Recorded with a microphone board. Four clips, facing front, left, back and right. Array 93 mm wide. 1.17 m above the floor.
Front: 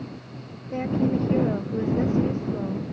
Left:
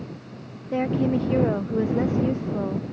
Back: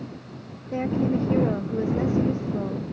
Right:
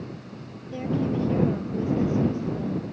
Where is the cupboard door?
I don't hear a cupboard door.